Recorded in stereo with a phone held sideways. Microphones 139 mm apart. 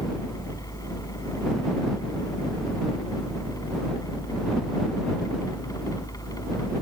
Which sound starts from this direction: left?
A fan, at 0.0 s.